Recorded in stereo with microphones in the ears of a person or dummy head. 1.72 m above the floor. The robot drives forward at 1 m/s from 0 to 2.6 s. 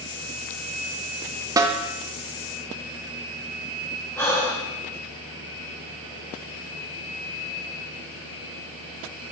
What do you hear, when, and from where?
1.6 s a snare drum: 15° right (ahead or behind), 0.5 m; by 1.8 s 10° right (ahead or behind), 0.8 m
4.2 s breathing: 15° left (ahead or behind), 1.2 m